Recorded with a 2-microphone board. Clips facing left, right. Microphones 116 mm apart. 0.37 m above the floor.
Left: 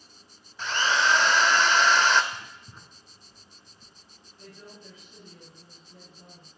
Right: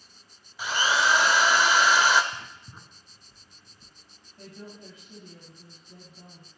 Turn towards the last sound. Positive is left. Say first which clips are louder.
# right 4 dB
turn(degrees=-65)  # may be behind; listen again after turning